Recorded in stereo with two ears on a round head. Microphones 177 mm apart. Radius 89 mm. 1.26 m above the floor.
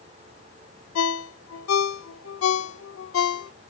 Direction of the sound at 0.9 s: 80° left.